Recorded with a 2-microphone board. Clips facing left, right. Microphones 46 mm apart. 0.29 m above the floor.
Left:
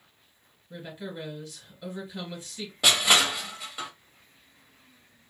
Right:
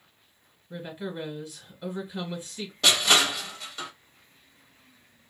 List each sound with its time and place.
0.7 s a woman speaking: 20° right (ahead or behind), 1.5 m
2.8 s crushing: 10° left (ahead or behind), 0.9 m